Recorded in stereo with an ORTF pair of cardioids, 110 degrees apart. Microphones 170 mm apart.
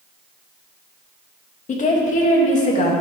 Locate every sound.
1.7 s a woman speaking: 45° left, 3 m